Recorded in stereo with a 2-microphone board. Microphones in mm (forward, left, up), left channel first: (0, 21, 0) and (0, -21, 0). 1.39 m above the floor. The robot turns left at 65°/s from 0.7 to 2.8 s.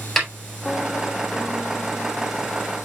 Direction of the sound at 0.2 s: 5° left (ahead or behind).